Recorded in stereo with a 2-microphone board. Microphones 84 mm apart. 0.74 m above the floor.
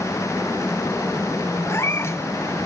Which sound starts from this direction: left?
A cat meowing, at 1.6 s.